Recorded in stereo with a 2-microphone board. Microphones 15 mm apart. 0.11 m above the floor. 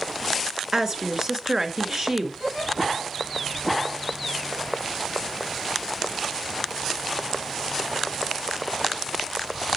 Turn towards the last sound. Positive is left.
turn(degrees=-50)  # may be behind; listen again after turning